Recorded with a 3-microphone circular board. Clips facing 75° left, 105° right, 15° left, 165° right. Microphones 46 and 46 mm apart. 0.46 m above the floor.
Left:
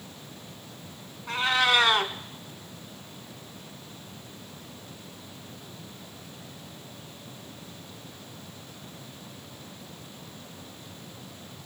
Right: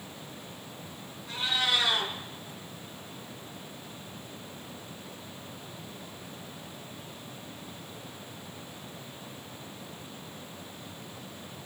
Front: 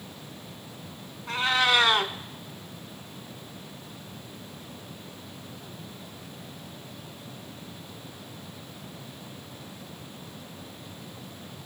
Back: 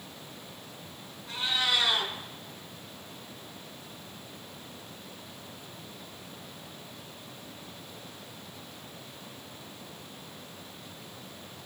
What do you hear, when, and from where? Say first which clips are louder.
1.3 s a cat meowing: left 6 dB, front 6 dB; 45° left, 1.1 m